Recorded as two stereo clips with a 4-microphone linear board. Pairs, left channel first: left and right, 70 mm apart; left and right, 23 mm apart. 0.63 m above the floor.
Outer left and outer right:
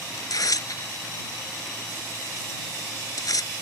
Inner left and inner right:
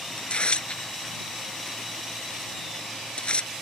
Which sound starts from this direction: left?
Tearing paper, at 0.2 s.